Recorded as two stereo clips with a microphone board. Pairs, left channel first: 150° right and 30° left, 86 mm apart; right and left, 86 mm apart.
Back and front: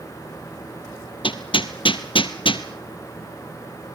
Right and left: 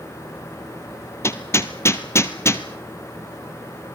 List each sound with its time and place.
1.2 s hammering: 150° right, 1.4 m